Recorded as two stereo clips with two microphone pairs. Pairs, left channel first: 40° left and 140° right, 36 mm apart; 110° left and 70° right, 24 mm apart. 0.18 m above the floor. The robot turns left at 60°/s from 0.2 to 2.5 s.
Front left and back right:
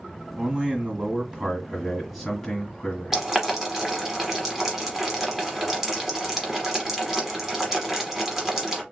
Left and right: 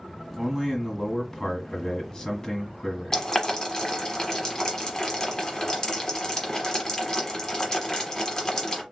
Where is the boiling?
155° left, 1.1 m.